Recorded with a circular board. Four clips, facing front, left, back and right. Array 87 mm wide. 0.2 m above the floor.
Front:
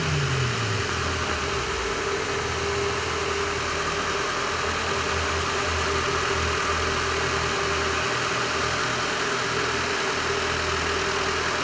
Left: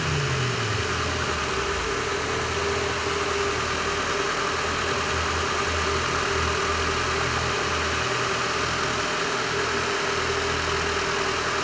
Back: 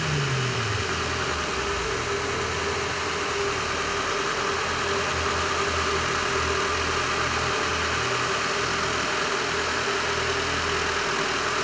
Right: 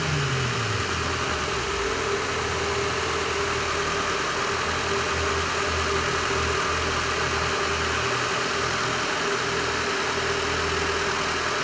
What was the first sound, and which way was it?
Only background noise.